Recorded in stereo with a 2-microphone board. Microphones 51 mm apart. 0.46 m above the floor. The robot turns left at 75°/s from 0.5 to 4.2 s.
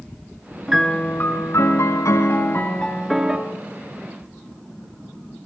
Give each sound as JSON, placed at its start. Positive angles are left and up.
{"t": 0.7, "sound": "a piano", "azimuth_deg": -175, "distance_m": 2.5}